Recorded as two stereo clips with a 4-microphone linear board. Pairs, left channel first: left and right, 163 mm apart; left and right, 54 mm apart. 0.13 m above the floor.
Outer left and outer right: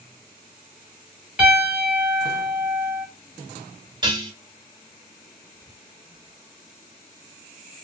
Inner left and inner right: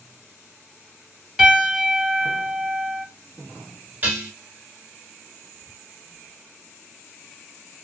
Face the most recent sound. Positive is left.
turn(degrees=-30)  # may be behind; listen again after turning